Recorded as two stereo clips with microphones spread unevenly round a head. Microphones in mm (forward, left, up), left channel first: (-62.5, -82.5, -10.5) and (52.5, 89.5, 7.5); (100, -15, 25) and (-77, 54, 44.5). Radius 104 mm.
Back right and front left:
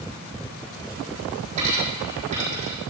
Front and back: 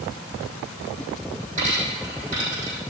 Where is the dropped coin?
110° left, 4.5 m.